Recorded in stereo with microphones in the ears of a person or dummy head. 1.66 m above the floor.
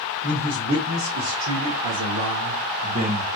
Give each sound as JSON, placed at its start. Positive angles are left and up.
{"t": 0.2, "sound": "a man speaking", "side_deg": -80, "distance_m": 1.8}